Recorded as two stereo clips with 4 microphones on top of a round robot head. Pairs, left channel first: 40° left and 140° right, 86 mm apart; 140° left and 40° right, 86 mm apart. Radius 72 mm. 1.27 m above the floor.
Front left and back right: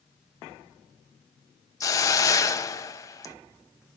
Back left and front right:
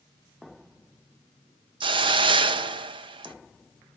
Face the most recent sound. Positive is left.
turn(degrees=-15)